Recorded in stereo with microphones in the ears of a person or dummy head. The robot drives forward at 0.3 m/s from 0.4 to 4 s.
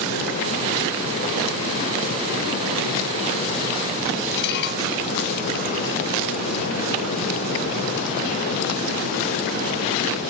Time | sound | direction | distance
4.4 | dishes clattering | 65° left (ahead or behind) | ?